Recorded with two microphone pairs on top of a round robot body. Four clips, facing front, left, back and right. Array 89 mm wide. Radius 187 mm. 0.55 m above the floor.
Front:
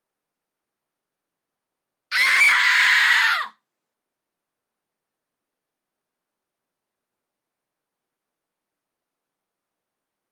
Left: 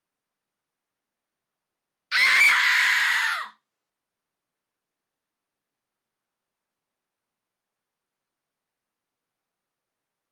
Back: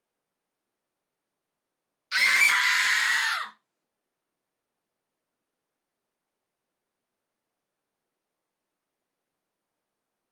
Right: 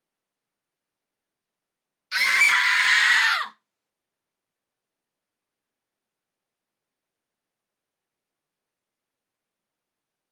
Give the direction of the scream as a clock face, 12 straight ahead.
11 o'clock.